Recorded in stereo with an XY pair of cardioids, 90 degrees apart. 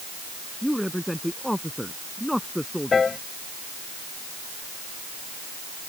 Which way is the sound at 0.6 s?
5° left.